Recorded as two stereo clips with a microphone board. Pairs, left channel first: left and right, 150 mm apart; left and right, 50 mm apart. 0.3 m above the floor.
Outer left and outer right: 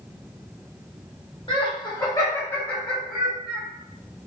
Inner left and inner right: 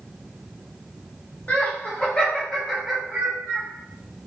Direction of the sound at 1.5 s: 35° left (ahead or behind).